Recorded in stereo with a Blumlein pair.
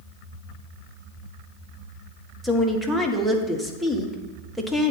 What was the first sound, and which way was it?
A woman speaking, 5° right.